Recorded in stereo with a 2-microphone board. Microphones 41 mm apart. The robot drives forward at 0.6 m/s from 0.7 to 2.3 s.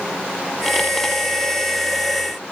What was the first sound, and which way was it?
Only background noise.